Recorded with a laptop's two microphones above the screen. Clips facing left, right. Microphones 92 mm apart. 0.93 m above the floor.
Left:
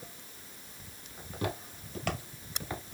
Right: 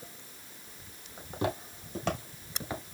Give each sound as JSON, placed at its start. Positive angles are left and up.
{"t": 1.2, "sound": "footsteps", "side_deg": -30, "distance_m": 2.0}